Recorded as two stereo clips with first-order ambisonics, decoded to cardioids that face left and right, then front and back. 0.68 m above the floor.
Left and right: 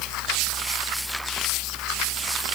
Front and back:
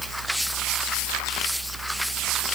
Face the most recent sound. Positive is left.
No sound to turn to.